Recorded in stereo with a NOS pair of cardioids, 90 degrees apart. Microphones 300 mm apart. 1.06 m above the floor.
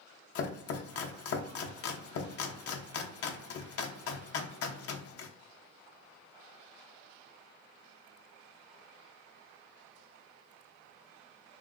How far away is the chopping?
About 0.6 m.